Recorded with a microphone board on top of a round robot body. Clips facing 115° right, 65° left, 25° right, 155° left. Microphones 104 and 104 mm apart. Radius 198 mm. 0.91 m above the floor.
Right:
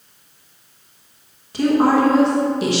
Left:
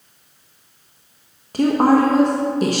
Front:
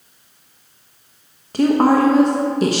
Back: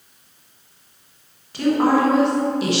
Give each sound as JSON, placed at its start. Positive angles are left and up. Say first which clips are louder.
{"t": 1.5, "sound": "a woman speaking", "louder": "left 1 dB, front 3 dB", "azimuth_deg": 25, "distance_m": 1.3}